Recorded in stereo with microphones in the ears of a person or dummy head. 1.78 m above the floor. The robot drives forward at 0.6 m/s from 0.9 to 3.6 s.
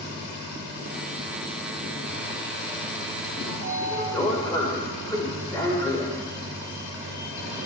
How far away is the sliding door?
About 2.5 m.